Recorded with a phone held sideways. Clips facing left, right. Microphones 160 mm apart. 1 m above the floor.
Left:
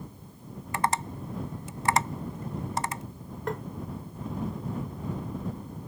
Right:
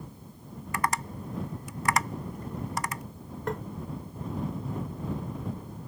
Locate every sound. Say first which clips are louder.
0.7 s tapping: left 2 dB; 30° left (ahead or behind)
3.5 s tapping: even; centre (ahead or behind)